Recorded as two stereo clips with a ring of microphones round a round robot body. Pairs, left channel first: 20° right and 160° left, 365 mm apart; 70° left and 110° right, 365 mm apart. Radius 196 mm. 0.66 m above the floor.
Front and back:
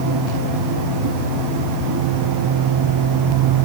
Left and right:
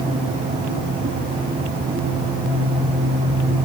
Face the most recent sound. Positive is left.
No sound to turn to.